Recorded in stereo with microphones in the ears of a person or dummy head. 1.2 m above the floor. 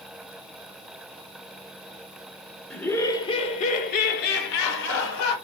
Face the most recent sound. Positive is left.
turn(degrees=75)  # may be behind; listen again after turning